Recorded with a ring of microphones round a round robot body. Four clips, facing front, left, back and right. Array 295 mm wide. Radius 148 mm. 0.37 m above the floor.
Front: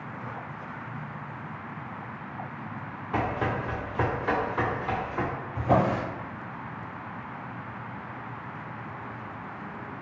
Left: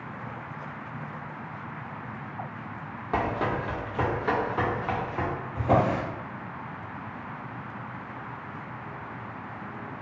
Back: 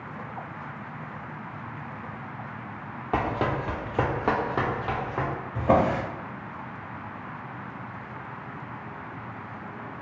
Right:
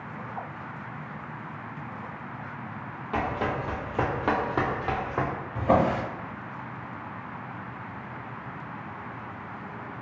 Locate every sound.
3.1 s running footsteps: 165° left, 0.8 m; by 5.3 s 115° right, 1.0 m
5.5 s a drawer: 155° right, 1.0 m